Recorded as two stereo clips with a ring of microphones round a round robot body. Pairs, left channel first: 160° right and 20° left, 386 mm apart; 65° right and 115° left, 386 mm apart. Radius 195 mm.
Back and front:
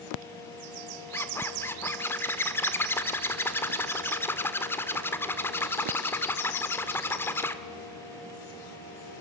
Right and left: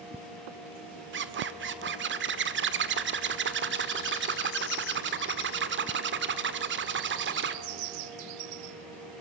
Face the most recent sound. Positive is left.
turn(degrees=125)